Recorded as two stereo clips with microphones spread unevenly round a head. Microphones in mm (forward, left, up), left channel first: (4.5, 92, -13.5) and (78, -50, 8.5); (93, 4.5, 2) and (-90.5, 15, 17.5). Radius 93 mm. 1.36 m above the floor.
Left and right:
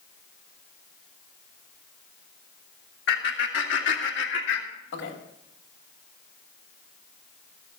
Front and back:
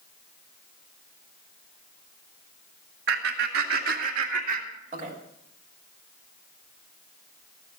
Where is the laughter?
150° left, 2.0 m; by 5.1 s 125° left, 2.5 m.